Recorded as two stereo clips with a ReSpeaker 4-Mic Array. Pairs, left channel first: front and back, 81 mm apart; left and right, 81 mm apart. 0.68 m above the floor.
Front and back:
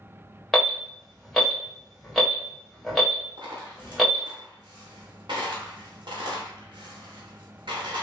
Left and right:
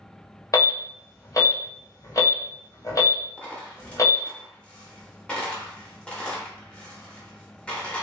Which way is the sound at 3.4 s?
165° left.